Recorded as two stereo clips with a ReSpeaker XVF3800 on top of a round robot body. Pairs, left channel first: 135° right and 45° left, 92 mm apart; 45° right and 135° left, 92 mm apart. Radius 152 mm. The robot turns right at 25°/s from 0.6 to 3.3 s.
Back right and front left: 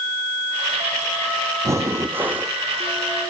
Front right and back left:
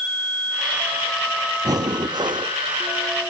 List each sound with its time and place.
1.6 s breathing: 95° left, 1.0 m; by 2.5 s 120° left, 1.0 m